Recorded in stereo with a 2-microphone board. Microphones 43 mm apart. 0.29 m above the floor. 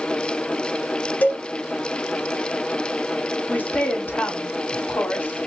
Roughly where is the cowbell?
Left.